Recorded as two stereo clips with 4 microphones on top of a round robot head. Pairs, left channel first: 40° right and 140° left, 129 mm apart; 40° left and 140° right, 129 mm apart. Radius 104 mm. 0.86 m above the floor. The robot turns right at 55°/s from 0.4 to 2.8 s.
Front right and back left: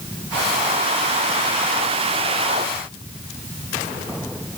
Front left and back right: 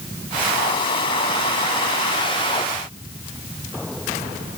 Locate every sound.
Only background noise.